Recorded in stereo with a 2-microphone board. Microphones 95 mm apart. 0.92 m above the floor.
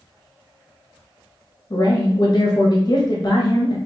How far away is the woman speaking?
About 0.7 m.